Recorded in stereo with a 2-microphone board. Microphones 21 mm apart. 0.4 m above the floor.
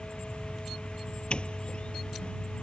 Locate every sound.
0.0 s an insect: 65° left (ahead or behind)
1.3 s a doorbell: 60° left (ahead or behind)